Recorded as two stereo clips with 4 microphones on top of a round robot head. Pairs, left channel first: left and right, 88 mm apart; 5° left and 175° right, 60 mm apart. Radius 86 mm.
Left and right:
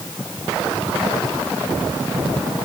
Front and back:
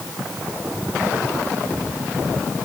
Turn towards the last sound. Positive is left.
No sound to turn to.